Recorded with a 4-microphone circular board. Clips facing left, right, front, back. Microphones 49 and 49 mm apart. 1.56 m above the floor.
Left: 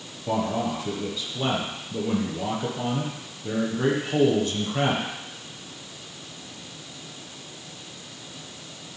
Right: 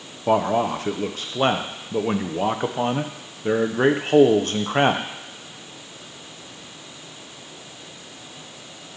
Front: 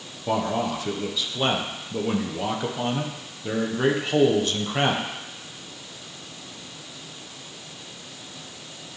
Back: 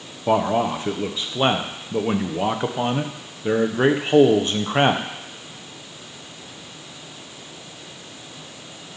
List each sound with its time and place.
0.3 s a man speaking: 120° right, 0.6 m